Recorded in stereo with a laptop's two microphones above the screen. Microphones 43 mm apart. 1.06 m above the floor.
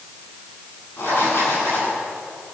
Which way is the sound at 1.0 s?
65° left (ahead or behind).